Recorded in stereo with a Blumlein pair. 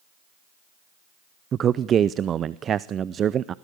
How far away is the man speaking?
About 0.5 m.